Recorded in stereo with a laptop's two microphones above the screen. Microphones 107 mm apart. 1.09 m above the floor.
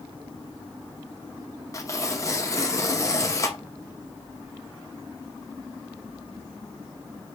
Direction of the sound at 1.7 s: 30° left (ahead or behind).